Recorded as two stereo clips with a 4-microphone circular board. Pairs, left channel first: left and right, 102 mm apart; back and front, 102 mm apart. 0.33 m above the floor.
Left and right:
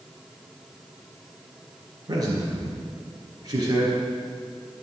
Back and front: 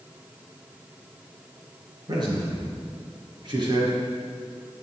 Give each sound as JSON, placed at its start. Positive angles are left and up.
{"t": 2.1, "sound": "a man speaking", "azimuth_deg": -40, "distance_m": 4.5}